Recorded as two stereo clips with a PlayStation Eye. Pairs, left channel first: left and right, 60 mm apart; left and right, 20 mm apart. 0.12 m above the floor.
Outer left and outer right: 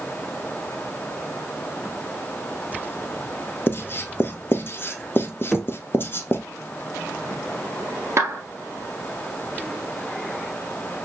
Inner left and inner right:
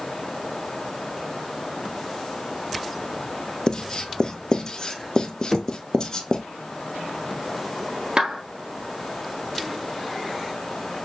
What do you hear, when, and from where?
3.7 s writing: 35° left (ahead or behind), 0.7 m
5.5 s knocking: 5° left (ahead or behind), 0.8 m
8.2 s a clap: 50° right (ahead or behind), 1.2 m